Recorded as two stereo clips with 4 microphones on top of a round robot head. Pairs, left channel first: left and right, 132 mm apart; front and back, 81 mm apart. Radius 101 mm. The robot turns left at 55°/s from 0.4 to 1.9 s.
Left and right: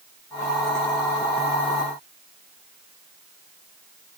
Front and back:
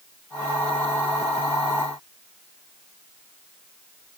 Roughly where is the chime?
I don't hear a chime.